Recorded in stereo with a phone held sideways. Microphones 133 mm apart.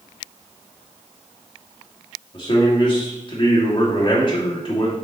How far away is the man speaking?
About 2.5 m.